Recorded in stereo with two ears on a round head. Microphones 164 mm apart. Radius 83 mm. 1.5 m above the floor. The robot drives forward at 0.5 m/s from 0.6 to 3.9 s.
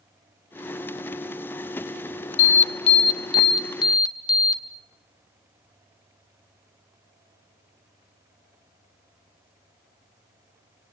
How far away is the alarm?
About 0.8 m.